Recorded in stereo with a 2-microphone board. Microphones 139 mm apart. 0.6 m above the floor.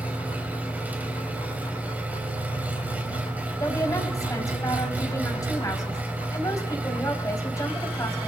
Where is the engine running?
10° right (ahead or behind), 3.5 m.